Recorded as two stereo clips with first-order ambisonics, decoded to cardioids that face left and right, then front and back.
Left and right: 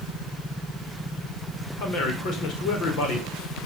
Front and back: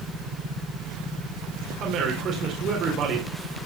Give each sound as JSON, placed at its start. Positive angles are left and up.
{"t": 1.8, "sound": "a man speaking", "azimuth_deg": 125, "distance_m": 4.5}